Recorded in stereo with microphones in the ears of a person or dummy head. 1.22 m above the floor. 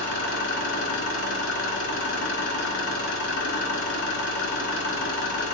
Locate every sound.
0.0 s an engine running: 60° left (ahead or behind), 1.6 m